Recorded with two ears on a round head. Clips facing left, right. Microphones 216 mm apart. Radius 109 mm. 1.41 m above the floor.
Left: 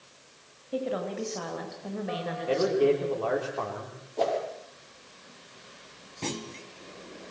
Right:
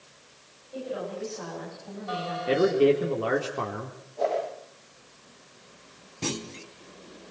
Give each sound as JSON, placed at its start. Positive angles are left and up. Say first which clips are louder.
{"t": 0.7, "sound": "a woman speaking", "louder": "left 3 dB", "side_deg": 75, "distance_m": 8.5}
{"t": 2.5, "sound": "a man speaking", "louder": "right 3 dB", "side_deg": -30, "distance_m": 4.0}
{"t": 4.2, "sound": "a whoosh", "louder": "even", "side_deg": 65, "distance_m": 9.0}
{"t": 6.2, "sound": "a clunk", "louder": "right 2 dB", "side_deg": -10, "distance_m": 1.8}